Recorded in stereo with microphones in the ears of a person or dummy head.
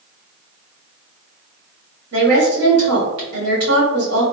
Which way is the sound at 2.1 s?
55° right (ahead or behind).